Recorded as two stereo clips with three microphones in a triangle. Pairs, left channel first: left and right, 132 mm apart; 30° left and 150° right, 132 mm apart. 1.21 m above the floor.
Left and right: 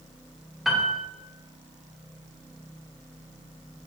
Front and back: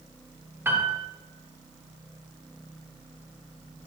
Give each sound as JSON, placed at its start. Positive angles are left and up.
{"t": 0.7, "sound": "a piano", "azimuth_deg": -175, "distance_m": 0.5}